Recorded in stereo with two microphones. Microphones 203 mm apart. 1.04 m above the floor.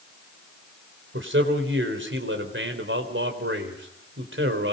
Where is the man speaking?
70° right (ahead or behind), 4 m.